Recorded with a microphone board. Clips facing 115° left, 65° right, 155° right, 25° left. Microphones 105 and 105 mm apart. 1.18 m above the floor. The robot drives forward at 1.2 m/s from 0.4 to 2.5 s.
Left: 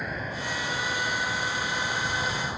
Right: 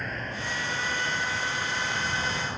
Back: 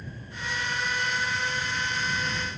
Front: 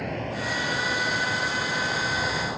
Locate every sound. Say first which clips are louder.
0.0 s a vehicle: left 1 dB, front 10 dB; 30° left; by 2.6 s 25° left